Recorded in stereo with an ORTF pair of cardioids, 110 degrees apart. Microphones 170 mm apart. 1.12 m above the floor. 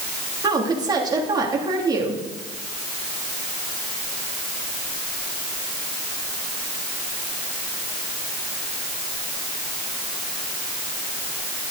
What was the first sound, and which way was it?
A woman speaking, 25° right.